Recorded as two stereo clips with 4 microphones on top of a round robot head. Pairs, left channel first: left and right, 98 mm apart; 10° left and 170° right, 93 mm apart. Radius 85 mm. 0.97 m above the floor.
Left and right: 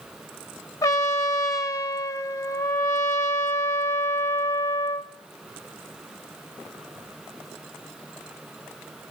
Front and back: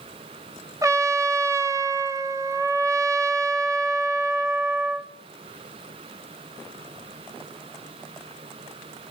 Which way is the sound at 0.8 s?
140° left.